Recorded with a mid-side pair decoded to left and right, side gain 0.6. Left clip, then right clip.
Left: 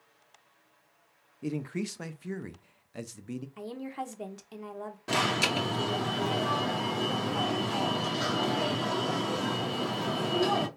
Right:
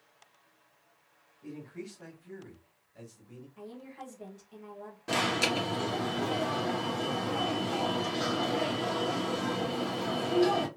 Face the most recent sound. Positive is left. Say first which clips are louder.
# left 1 dB
turn(degrees=5)